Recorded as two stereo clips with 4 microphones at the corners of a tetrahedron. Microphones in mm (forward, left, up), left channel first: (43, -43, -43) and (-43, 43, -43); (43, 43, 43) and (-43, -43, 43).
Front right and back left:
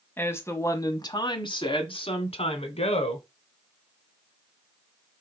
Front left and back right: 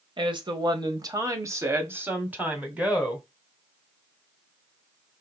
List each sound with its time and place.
0.2 s a woman speaking: 110° right, 1.3 m; by 3.2 s 50° right, 2 m